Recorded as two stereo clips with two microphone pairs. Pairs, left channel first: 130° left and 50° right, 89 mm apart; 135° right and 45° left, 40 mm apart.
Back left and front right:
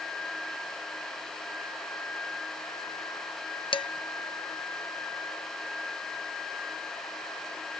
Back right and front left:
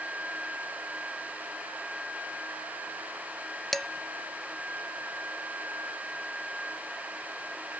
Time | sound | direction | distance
3.7 | dishes clattering | 145° left | 0.5 m